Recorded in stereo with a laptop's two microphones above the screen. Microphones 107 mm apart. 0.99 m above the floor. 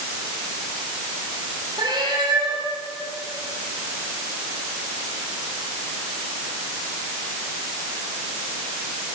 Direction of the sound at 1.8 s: 40° right (ahead or behind).